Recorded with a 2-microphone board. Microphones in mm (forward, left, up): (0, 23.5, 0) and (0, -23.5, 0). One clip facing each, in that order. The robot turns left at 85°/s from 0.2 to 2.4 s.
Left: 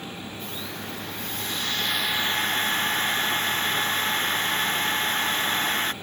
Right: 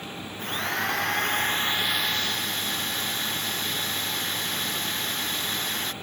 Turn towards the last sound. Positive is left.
turn(degrees=140)